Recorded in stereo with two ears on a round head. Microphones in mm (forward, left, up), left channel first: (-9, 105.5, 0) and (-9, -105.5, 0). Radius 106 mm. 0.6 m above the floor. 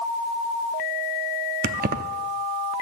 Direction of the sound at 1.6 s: 35° right (ahead or behind).